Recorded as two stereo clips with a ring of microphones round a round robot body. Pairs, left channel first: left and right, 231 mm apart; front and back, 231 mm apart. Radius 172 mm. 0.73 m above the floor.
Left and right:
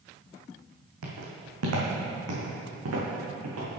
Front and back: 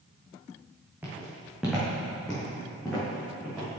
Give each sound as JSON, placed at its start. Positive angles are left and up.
{"t": 1.0, "sound": "footsteps", "azimuth_deg": -95, "distance_m": 1.8}